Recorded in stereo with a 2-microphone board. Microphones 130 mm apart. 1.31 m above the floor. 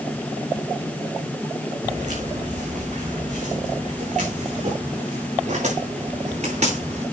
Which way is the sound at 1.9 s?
70° right (ahead or behind).